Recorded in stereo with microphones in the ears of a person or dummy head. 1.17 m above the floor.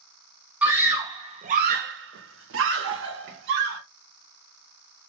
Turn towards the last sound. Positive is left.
turn(degrees=-70)  # may be behind; listen again after turning